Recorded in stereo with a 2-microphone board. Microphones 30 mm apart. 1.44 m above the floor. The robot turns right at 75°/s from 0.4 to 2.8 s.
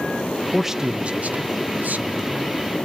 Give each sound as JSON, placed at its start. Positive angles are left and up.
{"t": 0.5, "sound": "a man speaking", "azimuth_deg": 180, "distance_m": 0.9}